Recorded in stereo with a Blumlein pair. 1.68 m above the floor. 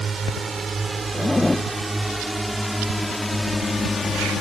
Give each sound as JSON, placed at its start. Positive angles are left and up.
{"t": 0.0, "sound": "a drone", "azimuth_deg": -15}
{"t": 1.1, "sound": "a zipper", "azimuth_deg": 10}